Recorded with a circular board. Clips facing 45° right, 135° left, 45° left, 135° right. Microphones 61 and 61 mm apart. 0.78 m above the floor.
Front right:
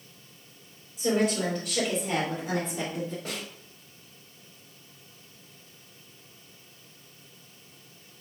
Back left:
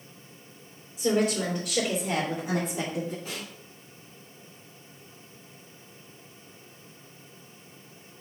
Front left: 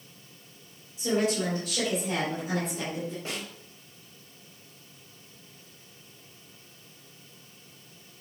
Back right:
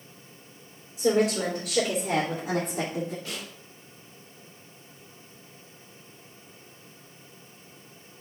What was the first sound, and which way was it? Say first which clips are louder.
A woman speaking: even, back right 4 dB; 130° right.